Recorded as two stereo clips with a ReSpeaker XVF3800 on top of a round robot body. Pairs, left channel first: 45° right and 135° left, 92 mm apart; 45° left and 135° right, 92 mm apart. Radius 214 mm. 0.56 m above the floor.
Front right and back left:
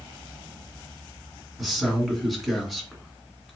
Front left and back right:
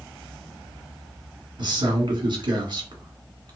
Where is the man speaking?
135° right, 1.7 m.